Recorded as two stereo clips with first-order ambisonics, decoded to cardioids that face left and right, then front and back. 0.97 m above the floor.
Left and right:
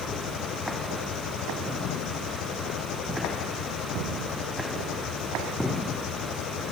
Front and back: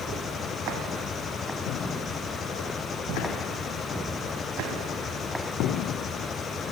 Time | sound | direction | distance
0.0 | an engine running | 65° left | ?